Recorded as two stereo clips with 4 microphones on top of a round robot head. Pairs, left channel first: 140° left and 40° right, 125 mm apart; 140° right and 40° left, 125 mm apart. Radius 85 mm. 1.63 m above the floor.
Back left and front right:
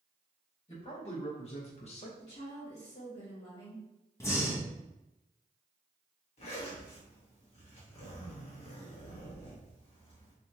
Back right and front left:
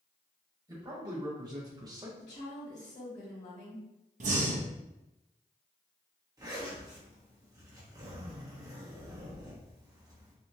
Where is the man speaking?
100° left, 1.7 m; by 2.1 s 105° left, 0.6 m.